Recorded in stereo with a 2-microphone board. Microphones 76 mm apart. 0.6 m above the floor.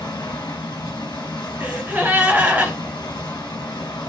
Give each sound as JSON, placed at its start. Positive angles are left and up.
{"t": 0.0, "sound": "running water", "side_deg": 70, "distance_m": 1.1}
{"t": 1.6, "sound": "a gasp", "side_deg": -20, "distance_m": 1.4}